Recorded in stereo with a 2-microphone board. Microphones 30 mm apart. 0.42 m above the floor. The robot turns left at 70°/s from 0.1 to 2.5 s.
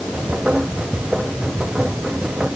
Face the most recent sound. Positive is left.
No sound to turn to.